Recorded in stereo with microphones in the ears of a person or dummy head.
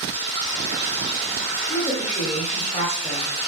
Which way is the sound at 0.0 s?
45° left (ahead or behind).